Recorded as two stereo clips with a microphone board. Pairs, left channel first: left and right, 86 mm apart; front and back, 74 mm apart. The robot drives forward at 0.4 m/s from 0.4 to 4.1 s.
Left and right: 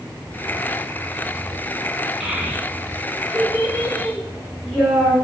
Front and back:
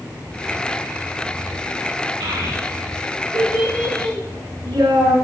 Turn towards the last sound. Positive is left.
turn(degrees=-170)